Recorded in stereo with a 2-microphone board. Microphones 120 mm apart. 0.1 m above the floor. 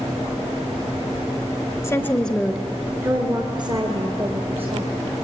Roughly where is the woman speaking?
Left.